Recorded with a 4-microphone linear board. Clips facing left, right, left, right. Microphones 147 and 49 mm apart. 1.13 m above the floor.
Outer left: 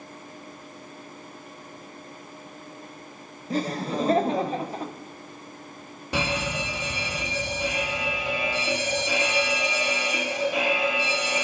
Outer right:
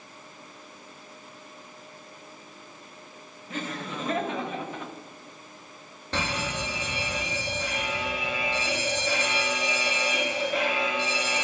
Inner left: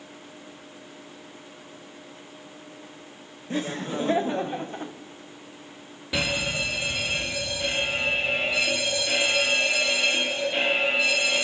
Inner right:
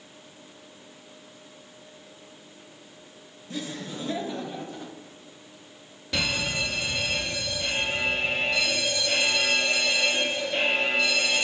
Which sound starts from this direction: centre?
A fire alarm, at 6.1 s.